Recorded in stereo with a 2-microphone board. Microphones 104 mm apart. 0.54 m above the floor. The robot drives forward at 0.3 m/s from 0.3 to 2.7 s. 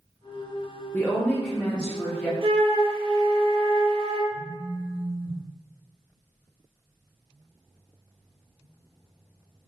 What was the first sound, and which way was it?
A woman speaking, 15° left (ahead or behind).